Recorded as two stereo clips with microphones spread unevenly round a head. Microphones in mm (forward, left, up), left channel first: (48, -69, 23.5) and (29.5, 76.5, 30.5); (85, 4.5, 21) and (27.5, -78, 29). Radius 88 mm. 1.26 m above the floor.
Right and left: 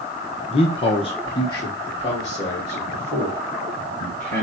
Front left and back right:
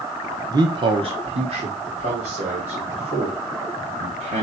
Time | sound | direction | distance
0.5 | a man speaking | 90° right | 0.7 m